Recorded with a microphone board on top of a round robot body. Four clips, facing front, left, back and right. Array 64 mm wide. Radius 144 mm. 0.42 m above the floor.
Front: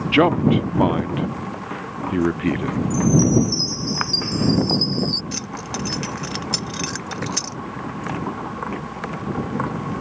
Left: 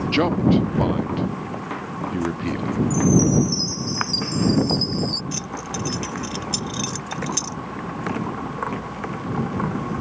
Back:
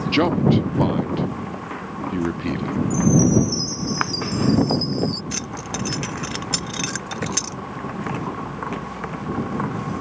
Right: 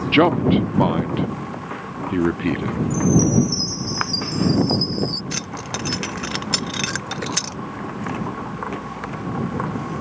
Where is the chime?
45° left.